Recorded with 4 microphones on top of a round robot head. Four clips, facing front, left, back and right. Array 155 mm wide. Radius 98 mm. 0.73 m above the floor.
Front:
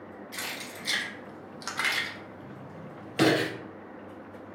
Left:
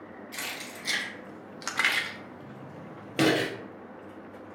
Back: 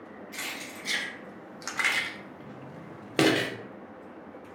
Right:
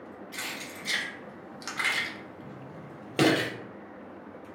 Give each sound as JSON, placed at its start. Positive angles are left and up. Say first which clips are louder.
{"t": 0.3, "sound": "keys jangling", "louder": "even, even", "azimuth_deg": 40, "distance_m": 0.9}